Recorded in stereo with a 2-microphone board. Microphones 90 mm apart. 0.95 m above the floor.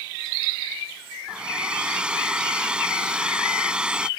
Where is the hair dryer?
10° right (ahead or behind).